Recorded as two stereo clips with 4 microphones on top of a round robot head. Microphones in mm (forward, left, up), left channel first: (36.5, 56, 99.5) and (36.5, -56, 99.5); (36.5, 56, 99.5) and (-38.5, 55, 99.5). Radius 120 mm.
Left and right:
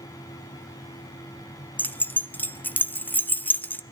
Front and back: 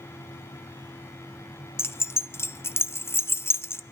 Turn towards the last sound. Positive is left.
turn(degrees=25)